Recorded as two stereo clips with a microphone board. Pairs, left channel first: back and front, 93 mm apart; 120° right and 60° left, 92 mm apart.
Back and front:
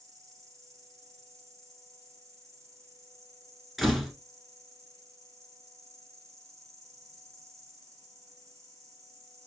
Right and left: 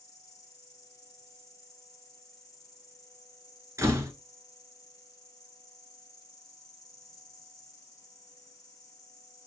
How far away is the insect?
About 2.0 m.